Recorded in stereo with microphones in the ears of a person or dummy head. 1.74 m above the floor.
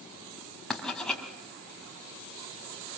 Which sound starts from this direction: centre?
Writing, at 0.7 s.